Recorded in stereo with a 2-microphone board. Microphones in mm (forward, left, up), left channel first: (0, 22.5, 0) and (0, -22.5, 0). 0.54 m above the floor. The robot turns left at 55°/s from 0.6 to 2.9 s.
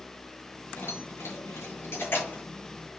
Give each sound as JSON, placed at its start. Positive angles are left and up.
{"t": 0.8, "sound": "keys jangling", "side_deg": 50, "distance_m": 8.0}